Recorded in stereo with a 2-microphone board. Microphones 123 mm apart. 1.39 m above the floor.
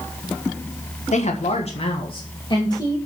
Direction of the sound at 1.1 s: 75° left (ahead or behind).